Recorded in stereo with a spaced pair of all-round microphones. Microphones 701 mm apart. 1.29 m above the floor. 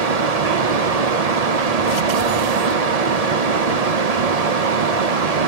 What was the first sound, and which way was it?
A fan, 60° right (ahead or behind).